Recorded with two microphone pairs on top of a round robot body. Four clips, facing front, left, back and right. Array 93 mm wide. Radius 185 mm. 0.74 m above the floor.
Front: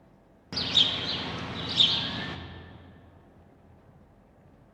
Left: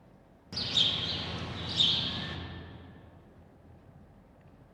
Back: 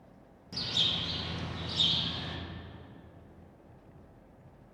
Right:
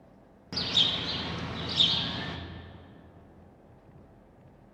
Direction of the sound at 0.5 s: 35° right.